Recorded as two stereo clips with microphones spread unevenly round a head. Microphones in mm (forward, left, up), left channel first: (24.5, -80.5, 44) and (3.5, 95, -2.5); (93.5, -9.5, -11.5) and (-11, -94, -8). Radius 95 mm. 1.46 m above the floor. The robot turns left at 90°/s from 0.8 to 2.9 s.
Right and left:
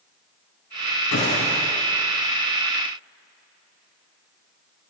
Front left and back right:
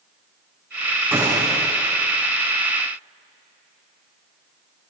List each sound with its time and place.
1.1 s a gunshot: 65° right, 8 m; by 1.6 s 105° right, 8 m